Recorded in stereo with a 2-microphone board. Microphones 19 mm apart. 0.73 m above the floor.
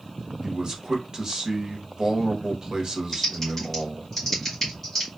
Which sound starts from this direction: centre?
Typing on a keyboard, at 3.1 s.